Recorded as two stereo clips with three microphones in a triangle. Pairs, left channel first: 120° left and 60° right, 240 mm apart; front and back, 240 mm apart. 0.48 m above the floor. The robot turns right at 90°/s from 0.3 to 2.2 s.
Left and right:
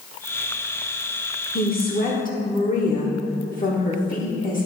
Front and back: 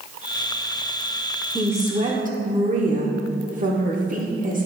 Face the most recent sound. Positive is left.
turn(degrees=150)